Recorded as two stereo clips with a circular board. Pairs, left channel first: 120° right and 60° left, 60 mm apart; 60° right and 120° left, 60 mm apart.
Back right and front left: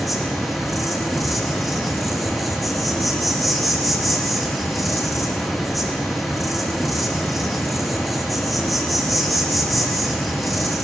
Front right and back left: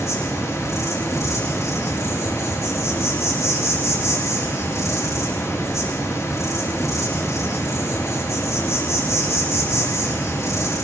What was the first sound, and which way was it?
An insect, 30° right.